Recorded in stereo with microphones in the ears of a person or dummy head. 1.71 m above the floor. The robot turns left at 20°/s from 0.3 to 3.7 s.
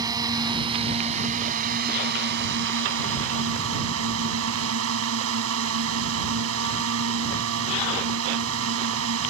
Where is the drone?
25° right; by 9.3 s 90° right.